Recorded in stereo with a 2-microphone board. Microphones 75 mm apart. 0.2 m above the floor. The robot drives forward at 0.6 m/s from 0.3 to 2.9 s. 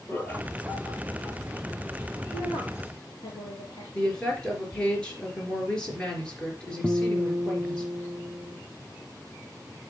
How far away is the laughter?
About 4.5 m.